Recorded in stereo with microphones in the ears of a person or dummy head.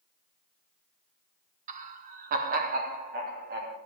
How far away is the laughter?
About 1.2 m.